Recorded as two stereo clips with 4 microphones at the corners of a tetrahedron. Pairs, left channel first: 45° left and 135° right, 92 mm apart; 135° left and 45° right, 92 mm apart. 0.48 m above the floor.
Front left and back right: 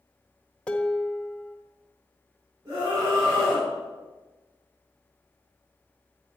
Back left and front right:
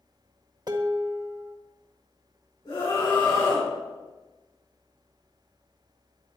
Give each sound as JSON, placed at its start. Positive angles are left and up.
{"t": 0.7, "sound": "dishes clattering", "azimuth_deg": -30, "distance_m": 1.0}
{"t": 2.6, "sound": "a scream", "azimuth_deg": 165, "distance_m": 6.0}